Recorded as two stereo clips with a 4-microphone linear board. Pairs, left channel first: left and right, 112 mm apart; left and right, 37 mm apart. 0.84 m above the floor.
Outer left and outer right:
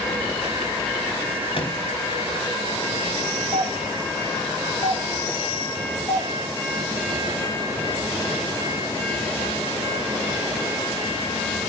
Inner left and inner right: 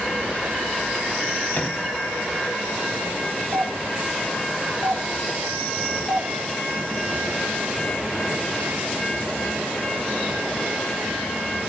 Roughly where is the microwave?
Left.